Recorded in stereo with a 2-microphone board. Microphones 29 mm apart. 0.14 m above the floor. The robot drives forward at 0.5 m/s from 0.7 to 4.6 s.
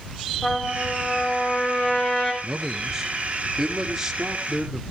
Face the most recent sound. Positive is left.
turn(degrees=-10)  # may be behind; listen again after turning